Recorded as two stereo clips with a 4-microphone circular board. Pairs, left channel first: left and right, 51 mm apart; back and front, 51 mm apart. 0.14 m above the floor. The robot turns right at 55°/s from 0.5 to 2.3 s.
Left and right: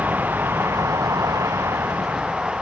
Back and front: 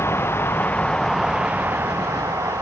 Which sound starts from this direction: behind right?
A vehicle, at 0.0 s.